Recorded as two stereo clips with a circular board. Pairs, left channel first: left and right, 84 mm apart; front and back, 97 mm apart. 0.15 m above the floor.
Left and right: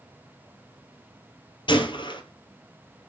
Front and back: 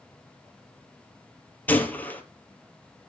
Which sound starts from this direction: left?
A gunshot, at 1.7 s.